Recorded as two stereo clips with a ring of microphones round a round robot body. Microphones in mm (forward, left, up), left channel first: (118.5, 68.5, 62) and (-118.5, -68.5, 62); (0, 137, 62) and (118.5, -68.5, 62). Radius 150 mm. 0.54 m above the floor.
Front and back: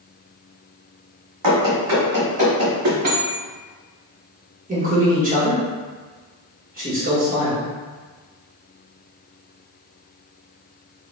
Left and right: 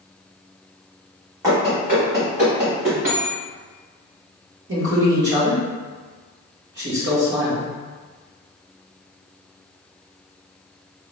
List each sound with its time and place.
1.4 s running footsteps: 140° right, 1.9 m; by 3.2 s 115° right, 2.5 m
3.1 s a bell: 100° right, 0.6 m
4.7 s a man speaking: 95° right, 1.5 m